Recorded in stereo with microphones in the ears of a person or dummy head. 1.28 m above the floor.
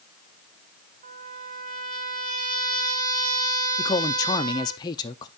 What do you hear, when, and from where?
1.0 s a trumpet: 45° right (ahead or behind), 1.6 m
3.8 s a man speaking: 20° left (ahead or behind), 0.5 m